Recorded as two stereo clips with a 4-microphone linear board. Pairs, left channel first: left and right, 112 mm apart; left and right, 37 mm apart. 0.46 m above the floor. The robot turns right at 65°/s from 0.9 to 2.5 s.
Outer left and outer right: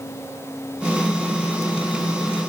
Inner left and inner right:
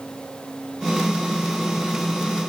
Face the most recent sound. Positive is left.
No sound to turn to.